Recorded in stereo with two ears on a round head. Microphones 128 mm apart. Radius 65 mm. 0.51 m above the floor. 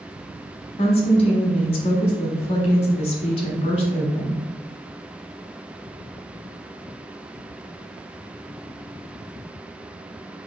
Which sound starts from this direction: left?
A woman speaking, at 0.8 s.